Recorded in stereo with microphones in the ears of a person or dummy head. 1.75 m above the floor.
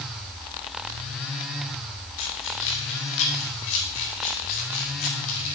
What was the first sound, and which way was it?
Keys jangling, 65° left (ahead or behind).